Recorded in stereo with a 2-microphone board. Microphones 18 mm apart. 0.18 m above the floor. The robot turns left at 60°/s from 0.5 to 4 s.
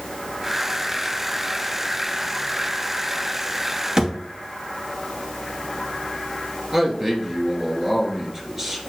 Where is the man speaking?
20° right (ahead or behind), 2.5 m.